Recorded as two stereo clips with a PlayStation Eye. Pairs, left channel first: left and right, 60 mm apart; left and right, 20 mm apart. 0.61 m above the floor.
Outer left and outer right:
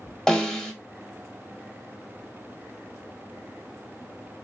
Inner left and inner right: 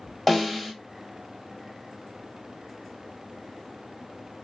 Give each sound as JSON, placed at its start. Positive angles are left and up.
{"t": 0.3, "sound": "a snare drum", "side_deg": 10, "distance_m": 0.8}